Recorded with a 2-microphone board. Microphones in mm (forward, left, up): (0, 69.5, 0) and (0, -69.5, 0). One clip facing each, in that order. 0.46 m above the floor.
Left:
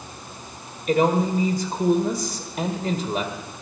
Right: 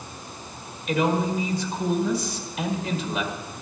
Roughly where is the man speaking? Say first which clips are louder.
Left 3 dB; left.